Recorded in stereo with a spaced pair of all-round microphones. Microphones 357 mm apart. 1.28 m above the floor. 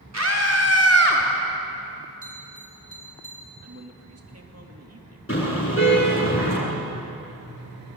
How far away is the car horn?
About 8 m.